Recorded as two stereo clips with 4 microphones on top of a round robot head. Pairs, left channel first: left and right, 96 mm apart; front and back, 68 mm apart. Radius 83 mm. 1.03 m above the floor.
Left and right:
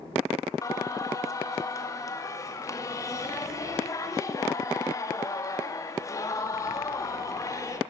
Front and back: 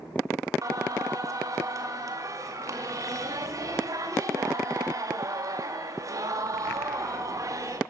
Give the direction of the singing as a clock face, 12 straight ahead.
7 o'clock.